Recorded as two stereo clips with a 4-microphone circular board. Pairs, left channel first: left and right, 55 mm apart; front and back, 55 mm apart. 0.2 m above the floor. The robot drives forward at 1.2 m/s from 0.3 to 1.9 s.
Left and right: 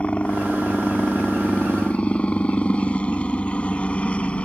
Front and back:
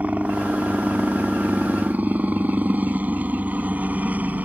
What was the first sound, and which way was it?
A helicopter, 140° left.